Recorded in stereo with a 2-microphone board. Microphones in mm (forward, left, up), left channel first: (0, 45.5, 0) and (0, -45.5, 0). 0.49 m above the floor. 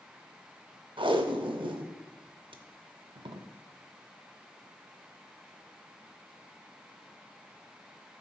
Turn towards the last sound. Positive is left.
turn(degrees=-65)  # may be behind; listen again after turning